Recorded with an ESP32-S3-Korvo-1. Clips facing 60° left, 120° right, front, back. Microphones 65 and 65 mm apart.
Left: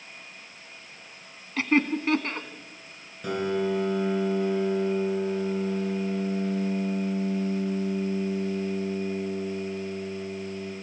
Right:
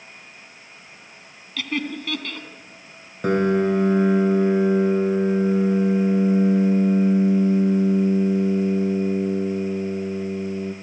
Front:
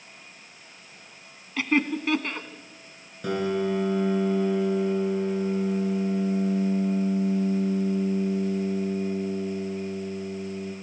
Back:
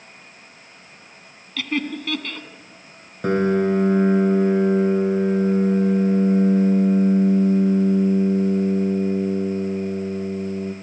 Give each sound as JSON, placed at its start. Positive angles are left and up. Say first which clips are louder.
{"t": 1.6, "sound": "laughter", "louder": "left 4 dB, front 1 dB", "azimuth_deg": 45, "distance_m": 1.6}
{"t": 3.2, "sound": "a piano", "louder": "right 8 dB, back 7 dB", "azimuth_deg": -145, "distance_m": 2.5}